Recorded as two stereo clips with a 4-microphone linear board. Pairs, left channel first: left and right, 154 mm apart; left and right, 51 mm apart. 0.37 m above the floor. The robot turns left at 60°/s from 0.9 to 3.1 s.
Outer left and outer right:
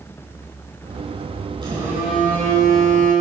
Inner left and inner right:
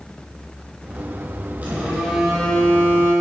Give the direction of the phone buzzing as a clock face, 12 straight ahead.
5 o'clock.